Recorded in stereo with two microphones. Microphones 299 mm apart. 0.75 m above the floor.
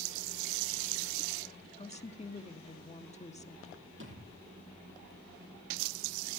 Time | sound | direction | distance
1.8 | a woman speaking | 20° left (ahead or behind) | 1.7 m
4.0 | a thud | 40° right (ahead or behind) | 9 m